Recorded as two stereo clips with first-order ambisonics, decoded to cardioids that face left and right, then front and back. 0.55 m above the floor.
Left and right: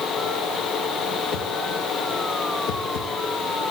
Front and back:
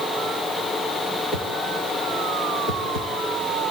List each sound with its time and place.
1.3 s a whoosh: 50° left, 3 m